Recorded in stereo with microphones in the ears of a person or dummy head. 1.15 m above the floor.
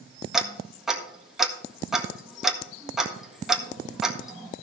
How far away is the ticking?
About 1.4 m.